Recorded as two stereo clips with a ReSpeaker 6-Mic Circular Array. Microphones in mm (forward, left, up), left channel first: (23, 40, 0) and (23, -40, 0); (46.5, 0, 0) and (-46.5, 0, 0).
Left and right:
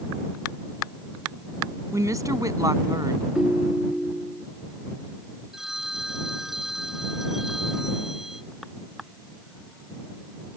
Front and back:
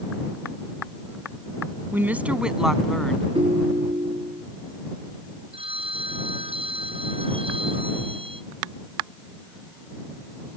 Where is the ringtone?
175° right.